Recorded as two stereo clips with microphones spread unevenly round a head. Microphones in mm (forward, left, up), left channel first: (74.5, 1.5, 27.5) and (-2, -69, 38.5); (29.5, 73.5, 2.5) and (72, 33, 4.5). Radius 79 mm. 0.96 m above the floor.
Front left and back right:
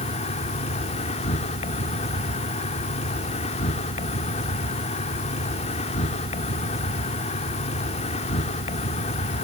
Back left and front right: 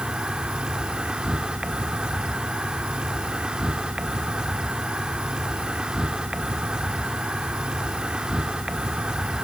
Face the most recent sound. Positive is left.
turn(degrees=30)